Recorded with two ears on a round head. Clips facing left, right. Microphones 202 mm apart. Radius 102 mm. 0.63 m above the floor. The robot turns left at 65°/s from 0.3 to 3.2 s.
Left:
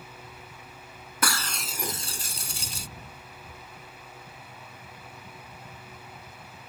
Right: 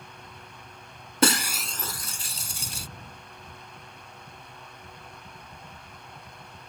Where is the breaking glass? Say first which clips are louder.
Right 8 dB; 155° right; by 2.9 s 100° left.